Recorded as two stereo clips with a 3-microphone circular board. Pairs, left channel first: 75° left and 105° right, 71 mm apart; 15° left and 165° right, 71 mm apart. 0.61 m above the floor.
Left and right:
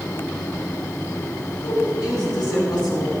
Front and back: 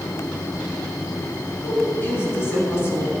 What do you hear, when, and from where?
1.6 s a woman speaking: 75° left, 5.5 m; by 3.1 s 70° left, 4.5 m